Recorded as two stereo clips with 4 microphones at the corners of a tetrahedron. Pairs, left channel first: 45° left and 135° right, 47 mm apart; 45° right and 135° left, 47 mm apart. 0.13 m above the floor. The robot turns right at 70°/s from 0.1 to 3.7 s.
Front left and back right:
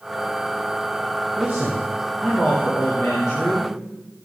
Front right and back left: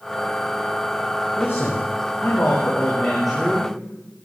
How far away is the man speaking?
About 4.5 m.